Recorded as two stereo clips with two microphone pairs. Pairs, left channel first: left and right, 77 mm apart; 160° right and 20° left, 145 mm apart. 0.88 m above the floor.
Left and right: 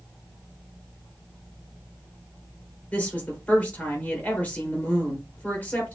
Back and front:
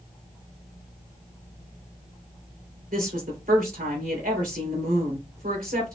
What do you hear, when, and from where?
2.9 s a woman speaking: 20° left, 2.5 m